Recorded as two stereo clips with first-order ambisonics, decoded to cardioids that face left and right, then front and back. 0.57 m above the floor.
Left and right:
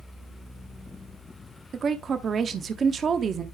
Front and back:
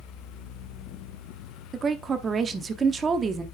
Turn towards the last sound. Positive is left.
turn(degrees=-130)